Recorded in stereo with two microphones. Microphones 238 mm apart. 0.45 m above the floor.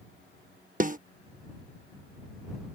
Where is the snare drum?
35° right (ahead or behind).